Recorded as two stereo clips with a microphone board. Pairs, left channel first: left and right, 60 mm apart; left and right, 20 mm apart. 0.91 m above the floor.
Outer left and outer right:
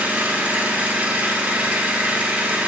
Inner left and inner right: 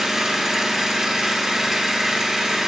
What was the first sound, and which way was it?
An engine running, 25° right (ahead or behind).